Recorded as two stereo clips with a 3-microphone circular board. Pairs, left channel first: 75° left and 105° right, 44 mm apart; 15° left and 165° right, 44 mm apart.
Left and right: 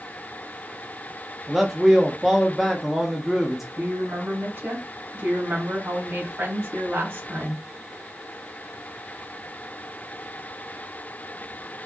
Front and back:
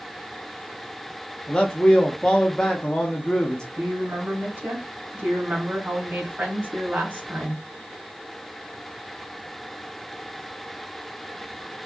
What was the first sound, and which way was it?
A man speaking, 25° right.